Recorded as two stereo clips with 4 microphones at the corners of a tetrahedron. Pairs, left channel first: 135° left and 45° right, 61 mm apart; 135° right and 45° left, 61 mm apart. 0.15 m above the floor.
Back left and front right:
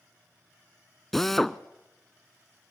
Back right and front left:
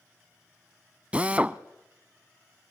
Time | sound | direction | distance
1.1 | a drill | 60° left | 0.5 m